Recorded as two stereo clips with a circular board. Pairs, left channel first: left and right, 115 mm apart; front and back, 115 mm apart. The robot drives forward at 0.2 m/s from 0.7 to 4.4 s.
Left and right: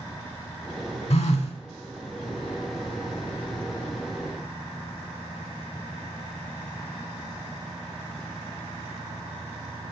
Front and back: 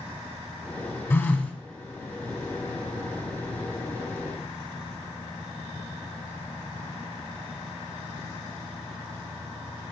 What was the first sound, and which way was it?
A phone buzzing, 70° left.